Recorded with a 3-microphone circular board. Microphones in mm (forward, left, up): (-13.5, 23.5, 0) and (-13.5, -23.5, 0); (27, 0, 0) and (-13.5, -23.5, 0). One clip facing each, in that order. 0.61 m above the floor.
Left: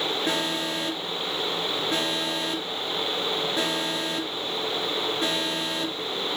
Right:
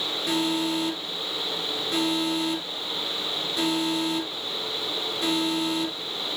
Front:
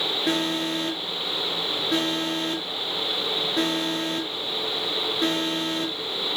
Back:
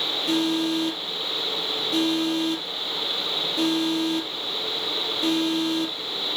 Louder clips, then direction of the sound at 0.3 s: Right 2 dB, back 4 dB; 40° left.